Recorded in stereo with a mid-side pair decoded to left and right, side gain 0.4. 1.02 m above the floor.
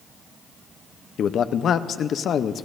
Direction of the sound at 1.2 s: 65° left.